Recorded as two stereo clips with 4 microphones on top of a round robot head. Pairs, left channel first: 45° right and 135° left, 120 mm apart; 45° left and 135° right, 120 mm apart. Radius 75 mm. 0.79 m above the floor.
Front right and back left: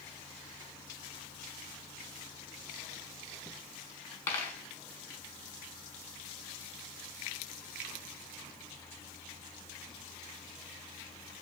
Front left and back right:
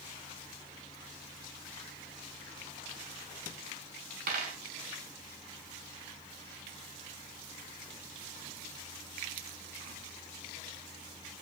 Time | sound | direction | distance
4.3 | a dropped coin | 120° right | 1.4 m